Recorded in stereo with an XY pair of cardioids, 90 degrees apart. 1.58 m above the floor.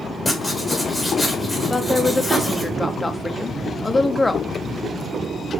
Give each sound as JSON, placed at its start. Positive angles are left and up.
{"t": 0.2, "sound": "writing", "azimuth_deg": 10, "distance_m": 1.7}
{"t": 1.7, "sound": "a woman speaking", "azimuth_deg": 20, "distance_m": 0.7}